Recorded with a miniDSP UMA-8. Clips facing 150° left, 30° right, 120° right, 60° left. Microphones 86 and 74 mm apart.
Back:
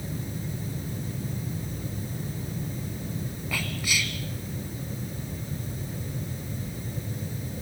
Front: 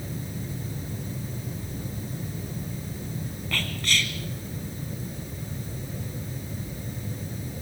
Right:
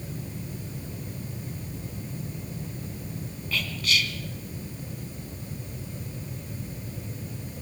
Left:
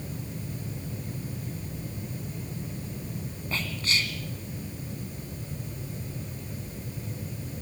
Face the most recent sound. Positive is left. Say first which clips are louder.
# front 2 dB, right 2 dB
turn(degrees=75)